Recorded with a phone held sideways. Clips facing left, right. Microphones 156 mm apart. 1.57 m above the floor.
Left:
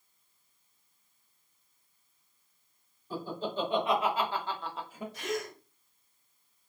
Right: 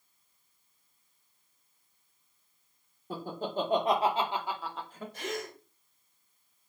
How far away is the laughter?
About 1.1 m.